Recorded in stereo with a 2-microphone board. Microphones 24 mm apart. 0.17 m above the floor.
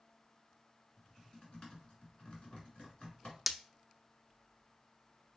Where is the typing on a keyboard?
45° left (ahead or behind), 2.5 m.